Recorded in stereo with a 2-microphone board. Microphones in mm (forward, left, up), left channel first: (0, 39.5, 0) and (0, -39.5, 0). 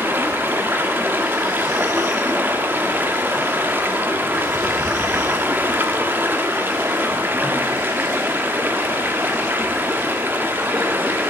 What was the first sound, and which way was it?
Running water, 25° right (ahead or behind).